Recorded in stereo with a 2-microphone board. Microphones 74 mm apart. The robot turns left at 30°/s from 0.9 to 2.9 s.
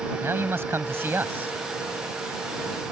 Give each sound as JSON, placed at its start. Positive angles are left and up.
{"t": 0.2, "sound": "a man speaking", "side_deg": -35}